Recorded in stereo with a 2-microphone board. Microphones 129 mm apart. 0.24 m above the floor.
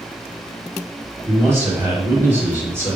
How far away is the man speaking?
About 0.9 m.